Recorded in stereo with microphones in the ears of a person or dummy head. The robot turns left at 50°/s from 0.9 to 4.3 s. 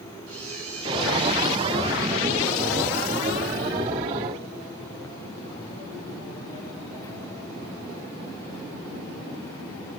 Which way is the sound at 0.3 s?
120° right.